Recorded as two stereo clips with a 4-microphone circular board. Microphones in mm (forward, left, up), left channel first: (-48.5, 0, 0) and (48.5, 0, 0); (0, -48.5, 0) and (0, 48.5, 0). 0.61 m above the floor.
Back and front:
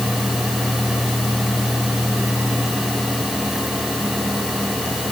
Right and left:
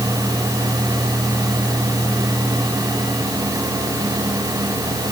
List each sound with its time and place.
Only background noise.